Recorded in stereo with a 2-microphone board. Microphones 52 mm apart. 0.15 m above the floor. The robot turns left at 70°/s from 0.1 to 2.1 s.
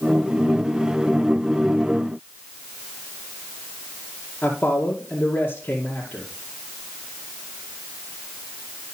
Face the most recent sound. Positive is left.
turn(degrees=25)  # may be behind; listen again after turning